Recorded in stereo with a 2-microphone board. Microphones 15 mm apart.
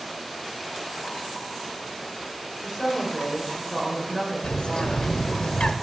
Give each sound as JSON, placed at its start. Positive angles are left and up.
{"t": 2.6, "sound": "a woman speaking", "side_deg": -30, "distance_m": 3.0}
{"t": 4.4, "sound": "a bird", "side_deg": 80, "distance_m": 0.7}